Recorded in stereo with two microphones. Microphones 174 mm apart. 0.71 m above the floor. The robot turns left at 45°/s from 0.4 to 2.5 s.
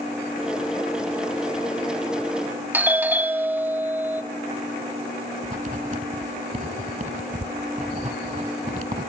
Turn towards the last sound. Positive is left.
turn(degrees=-45)  # may be behind; listen again after turning